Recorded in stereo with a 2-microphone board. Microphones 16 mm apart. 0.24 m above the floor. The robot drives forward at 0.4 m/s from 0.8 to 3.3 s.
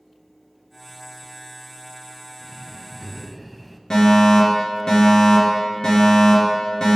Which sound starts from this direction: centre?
Breathing, at 2.4 s.